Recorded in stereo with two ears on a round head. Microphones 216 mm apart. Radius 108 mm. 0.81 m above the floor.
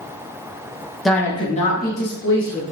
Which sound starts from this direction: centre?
A woman speaking, at 1.1 s.